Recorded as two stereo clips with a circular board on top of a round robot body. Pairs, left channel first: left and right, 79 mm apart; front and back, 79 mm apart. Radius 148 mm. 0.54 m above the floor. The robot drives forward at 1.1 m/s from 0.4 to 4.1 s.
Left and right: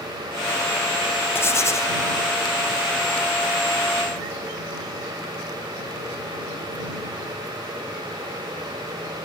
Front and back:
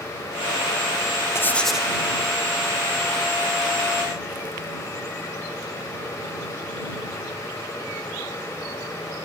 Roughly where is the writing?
Ahead left.